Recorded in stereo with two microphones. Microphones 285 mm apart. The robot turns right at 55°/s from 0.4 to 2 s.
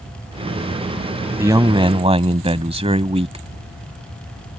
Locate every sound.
1.4 s a man speaking: 10° right (ahead or behind); by 3.5 s 20° right (ahead or behind)